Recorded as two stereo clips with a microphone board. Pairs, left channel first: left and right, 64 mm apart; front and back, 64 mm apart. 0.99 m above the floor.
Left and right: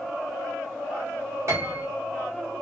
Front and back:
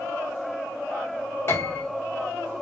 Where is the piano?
50° right, 1.1 m.